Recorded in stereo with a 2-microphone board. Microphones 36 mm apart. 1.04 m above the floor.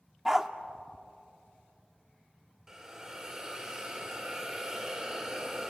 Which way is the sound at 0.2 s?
15° right (ahead or behind).